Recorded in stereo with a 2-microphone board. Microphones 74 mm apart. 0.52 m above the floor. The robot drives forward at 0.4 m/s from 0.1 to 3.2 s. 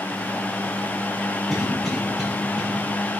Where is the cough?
Centre (ahead or behind), 5 m.